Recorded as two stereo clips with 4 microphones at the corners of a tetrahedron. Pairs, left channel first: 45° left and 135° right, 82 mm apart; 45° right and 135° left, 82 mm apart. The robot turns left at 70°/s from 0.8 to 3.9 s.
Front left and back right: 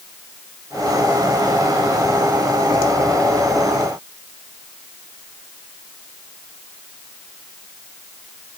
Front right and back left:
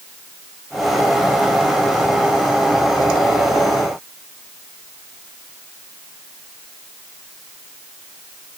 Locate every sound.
Only background noise.